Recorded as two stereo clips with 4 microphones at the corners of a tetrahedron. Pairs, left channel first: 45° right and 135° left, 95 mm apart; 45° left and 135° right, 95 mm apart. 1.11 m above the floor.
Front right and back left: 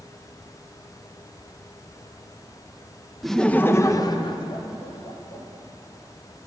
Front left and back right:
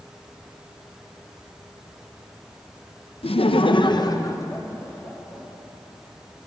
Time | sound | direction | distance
3.2 | laughter | 45° left | 0.7 m